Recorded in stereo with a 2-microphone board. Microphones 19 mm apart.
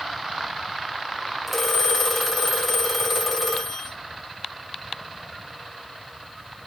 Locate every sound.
1.5 s a phone ringing: 5° right (ahead or behind), 1.8 m